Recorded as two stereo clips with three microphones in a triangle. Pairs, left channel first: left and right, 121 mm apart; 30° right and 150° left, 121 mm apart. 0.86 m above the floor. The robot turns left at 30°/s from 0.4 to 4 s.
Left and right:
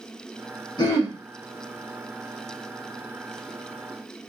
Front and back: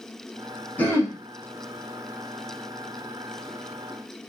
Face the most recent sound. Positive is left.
turn(degrees=-55)